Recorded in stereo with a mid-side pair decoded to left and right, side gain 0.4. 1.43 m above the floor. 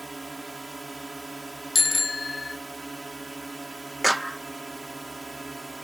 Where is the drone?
20° right.